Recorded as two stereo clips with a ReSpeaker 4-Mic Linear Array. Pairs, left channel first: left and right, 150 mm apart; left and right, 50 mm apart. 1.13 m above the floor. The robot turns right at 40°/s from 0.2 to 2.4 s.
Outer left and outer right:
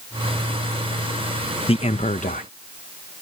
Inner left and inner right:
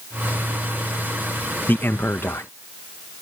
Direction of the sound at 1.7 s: 40° left (ahead or behind).